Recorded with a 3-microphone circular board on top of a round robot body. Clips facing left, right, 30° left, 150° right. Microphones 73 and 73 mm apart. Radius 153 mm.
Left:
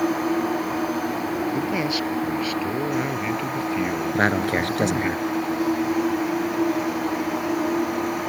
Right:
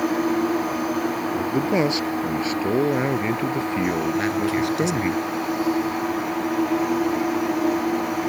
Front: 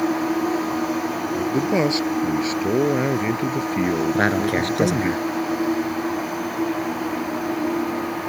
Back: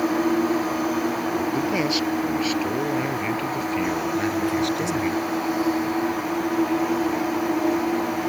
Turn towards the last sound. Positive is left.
turn(degrees=50)